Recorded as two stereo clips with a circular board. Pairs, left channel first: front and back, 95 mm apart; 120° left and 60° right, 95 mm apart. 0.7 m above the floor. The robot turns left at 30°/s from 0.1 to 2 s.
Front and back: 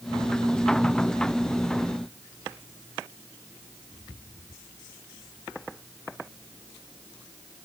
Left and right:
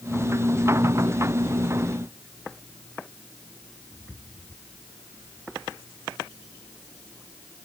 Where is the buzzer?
I don't hear a buzzer.